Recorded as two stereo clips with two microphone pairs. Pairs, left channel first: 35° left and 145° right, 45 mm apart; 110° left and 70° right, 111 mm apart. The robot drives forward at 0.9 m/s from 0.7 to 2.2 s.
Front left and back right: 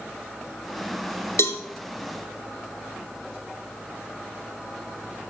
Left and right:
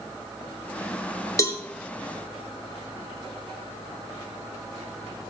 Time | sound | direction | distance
1.4 | a cowbell | 45° left | 1.2 m